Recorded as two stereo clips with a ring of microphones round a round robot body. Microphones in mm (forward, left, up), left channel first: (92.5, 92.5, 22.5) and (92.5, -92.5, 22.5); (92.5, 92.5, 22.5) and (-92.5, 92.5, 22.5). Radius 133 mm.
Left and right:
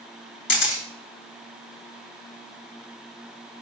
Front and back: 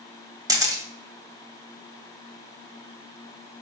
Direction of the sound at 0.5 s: 110° left.